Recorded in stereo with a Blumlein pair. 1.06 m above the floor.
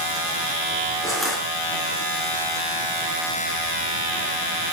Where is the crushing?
5° right, 5 m.